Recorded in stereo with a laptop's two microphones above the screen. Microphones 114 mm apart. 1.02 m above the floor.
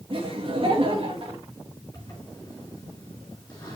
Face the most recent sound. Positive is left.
turn(degrees=30)  # may be behind; listen again after turning